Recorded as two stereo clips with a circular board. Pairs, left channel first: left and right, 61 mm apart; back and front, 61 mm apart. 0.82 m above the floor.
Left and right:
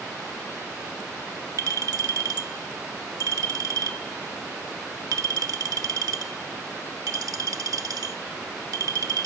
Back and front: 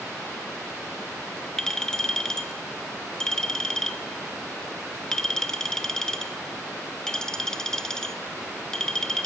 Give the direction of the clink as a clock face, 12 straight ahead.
3 o'clock.